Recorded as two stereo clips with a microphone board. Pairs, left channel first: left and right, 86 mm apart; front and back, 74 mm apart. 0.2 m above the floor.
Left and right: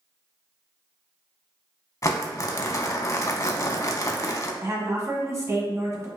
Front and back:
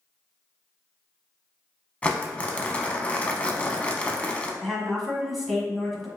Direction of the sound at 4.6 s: 90° right.